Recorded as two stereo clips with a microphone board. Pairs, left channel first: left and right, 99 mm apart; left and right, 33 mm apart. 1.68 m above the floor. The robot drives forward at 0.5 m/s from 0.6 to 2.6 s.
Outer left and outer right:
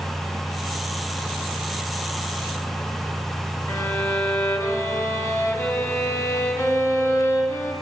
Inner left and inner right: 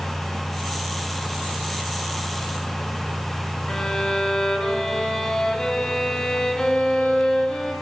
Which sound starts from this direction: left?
A violin, at 3.7 s.